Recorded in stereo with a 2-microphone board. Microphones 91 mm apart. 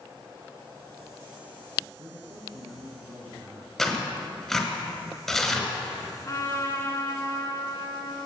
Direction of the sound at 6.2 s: 40° left (ahead or behind).